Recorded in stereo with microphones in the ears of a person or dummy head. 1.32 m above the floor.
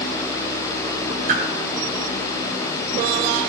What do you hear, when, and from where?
1.3 s a whoosh: 50° right (ahead or behind), 5.5 m